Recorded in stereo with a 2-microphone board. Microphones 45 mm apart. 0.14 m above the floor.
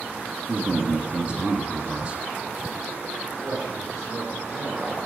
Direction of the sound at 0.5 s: 25° right (ahead or behind).